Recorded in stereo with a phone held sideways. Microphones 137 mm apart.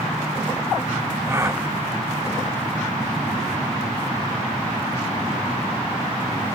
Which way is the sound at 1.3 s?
20° right (ahead or behind).